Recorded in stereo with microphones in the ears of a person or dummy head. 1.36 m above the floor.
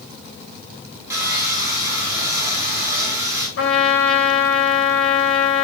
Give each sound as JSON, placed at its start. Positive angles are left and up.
{"t": 1.1, "sound": "sawing", "side_deg": -10, "distance_m": 4.5}
{"t": 3.6, "sound": "a trumpet", "side_deg": 85, "distance_m": 4.0}